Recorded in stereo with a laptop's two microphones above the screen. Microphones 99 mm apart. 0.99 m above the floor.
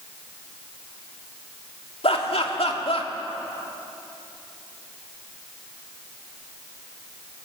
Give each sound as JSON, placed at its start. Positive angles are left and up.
{"t": 2.0, "sound": "laughter", "side_deg": 70, "distance_m": 2.5}